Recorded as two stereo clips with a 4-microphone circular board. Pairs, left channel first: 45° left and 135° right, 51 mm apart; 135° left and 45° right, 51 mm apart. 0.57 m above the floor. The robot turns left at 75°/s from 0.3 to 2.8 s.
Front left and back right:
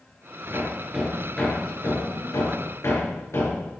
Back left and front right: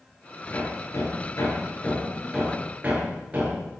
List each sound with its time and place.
0.5 s hammering: 175° right, 5.5 m; by 3.6 s 15° left, 5.5 m